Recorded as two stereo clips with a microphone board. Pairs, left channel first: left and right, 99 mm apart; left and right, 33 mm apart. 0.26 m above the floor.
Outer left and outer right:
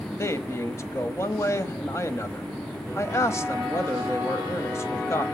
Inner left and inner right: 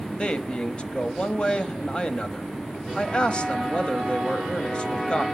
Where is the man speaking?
30° left (ahead or behind), 1.1 m.